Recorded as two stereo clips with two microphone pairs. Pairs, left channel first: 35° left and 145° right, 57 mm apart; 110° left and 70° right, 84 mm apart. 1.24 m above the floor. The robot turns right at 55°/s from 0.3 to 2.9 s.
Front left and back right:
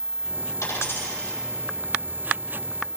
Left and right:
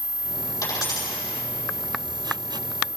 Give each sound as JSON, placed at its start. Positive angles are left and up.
{"t": 0.6, "sound": "a dropped coin", "azimuth_deg": 60, "distance_m": 6.0}